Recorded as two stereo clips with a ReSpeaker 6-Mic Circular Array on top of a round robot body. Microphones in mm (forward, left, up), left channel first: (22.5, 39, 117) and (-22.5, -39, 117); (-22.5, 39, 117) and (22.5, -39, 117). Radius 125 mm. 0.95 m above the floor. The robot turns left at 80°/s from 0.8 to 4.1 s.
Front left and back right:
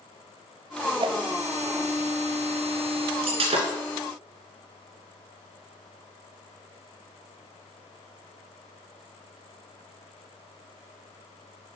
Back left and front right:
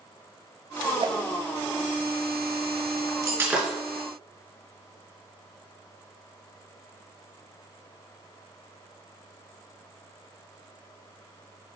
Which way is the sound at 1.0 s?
90° right.